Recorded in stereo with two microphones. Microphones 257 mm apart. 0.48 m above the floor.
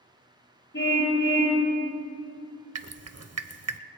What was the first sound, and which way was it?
A car horn, 45° left (ahead or behind).